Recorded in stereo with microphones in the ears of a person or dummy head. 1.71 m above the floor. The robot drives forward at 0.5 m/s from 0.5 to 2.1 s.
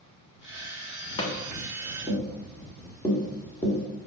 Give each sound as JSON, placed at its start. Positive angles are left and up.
{"t": 1.2, "sound": "tapping", "side_deg": 30, "distance_m": 0.7}